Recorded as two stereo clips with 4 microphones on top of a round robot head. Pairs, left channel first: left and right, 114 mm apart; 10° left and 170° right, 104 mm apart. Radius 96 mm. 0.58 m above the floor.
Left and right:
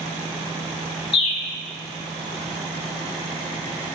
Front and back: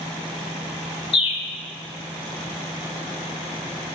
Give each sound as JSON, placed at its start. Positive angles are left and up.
{"t": 1.1, "sound": "a bird", "azimuth_deg": 45, "distance_m": 0.5}